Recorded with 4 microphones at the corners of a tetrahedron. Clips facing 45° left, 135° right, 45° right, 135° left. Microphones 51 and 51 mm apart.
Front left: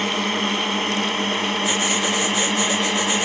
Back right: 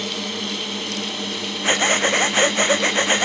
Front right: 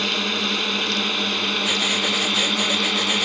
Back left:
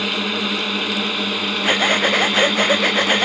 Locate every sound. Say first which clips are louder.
0.0 s a drone: front left 6 dB, back left 2 dB; 55° left; by 3.3 s 50° left
1.6 s breathing: back right 3 dB, back left 10 dB; straight behind